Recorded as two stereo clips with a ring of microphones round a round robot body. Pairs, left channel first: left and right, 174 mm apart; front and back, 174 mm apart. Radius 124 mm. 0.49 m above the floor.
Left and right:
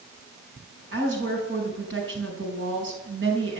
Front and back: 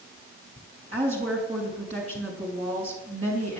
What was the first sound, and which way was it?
A woman speaking, 115° right.